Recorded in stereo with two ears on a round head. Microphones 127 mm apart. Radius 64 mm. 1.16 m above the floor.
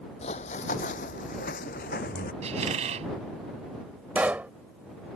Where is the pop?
10° right (ahead or behind).